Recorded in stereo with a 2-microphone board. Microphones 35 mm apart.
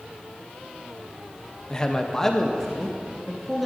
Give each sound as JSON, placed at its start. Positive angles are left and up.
{"t": 1.7, "sound": "a man speaking", "side_deg": 20, "distance_m": 0.6}